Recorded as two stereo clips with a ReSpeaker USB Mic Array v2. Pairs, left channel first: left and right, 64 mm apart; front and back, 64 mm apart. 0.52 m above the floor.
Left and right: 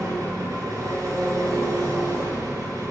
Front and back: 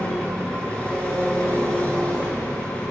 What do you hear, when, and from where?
0.0 s an engine running: 70° right, 7.5 m